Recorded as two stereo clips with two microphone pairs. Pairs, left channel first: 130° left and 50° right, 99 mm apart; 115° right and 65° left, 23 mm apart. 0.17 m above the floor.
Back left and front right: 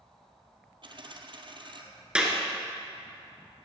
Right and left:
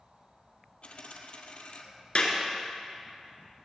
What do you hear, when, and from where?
0.8 s a dropped coin: 85° right, 1.3 m
2.1 s a clap: 130° right, 2.5 m